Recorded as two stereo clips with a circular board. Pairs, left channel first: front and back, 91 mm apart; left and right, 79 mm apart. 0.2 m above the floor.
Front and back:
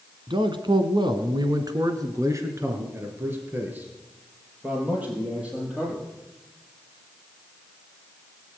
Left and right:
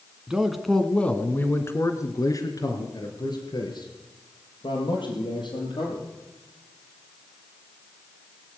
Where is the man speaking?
170° right, 1.6 m; by 6.0 s 100° left, 5 m.